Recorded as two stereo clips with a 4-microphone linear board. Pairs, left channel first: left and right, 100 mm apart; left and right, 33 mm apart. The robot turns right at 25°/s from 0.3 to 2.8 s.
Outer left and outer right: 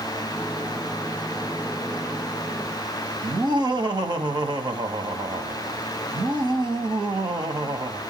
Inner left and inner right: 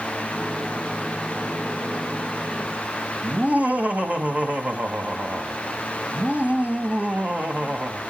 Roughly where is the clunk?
I don't hear a clunk.